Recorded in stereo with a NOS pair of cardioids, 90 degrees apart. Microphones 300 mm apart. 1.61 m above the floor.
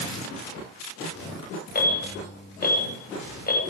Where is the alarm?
30° left, 10 m.